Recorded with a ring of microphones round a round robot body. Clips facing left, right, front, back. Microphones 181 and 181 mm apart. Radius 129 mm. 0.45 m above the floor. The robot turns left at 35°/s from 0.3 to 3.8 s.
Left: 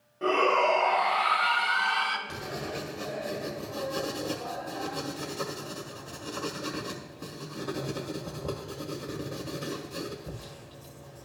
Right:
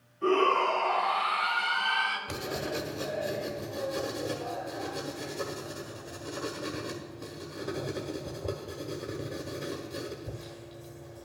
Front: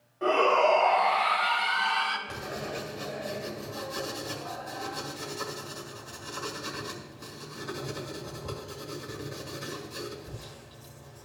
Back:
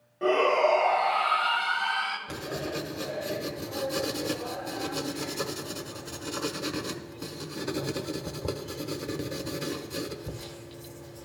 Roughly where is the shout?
Behind left.